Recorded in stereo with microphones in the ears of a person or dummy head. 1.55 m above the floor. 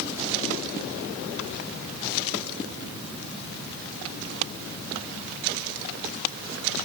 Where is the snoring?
No snoring in this recording.